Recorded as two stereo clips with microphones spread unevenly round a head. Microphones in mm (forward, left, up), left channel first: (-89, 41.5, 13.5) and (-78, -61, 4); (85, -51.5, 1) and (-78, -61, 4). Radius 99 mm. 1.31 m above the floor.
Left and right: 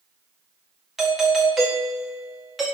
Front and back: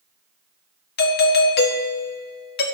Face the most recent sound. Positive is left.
turn(degrees=0)